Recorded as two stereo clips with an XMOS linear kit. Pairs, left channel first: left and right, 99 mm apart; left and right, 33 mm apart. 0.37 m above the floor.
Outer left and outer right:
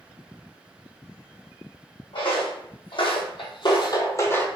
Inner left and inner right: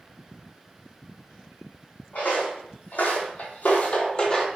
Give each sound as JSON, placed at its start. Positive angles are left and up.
{"t": 2.1, "sound": "footsteps", "side_deg": 65, "distance_m": 1.3}